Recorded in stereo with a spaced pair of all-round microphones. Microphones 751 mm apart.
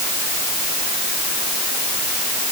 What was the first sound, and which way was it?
Only background noise.